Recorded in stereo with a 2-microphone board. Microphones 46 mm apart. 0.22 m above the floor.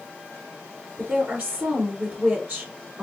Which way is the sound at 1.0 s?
40° right (ahead or behind).